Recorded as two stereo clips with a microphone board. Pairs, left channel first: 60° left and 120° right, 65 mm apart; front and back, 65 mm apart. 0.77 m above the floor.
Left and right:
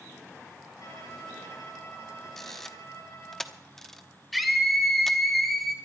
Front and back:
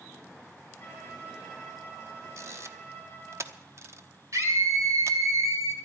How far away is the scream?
About 3.5 m.